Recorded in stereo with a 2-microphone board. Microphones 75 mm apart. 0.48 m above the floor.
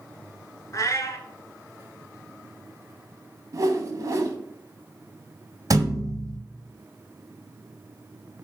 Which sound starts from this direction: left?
A cat meowing, at 0.7 s.